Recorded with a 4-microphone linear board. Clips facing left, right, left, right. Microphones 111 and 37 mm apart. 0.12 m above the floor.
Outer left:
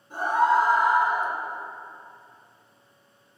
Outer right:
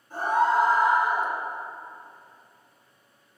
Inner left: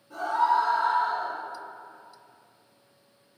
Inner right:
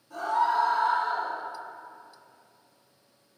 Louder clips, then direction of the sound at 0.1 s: Outer left 1 dB, inner left 2 dB; 25° left (ahead or behind).